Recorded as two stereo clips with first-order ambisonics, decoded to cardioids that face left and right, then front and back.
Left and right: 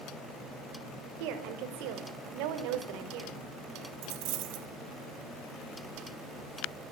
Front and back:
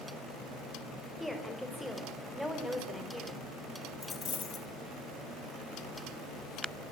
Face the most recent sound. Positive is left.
turn(degrees=-70)